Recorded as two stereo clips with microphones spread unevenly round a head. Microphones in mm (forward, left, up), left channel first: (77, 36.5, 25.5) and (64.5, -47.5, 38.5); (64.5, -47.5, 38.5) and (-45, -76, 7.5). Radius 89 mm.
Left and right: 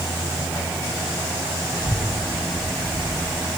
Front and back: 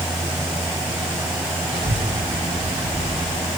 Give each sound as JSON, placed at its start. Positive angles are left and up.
{"t": 1.7, "sound": "a child speaking", "azimuth_deg": -170, "distance_m": 1.7}